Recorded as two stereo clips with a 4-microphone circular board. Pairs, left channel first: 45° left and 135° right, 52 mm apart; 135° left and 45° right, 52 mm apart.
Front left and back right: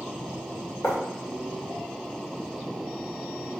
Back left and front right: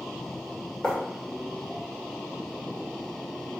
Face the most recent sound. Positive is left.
turn(degrees=70)